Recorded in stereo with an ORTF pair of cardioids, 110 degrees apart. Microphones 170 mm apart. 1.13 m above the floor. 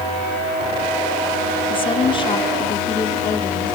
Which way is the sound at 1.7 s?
30° left.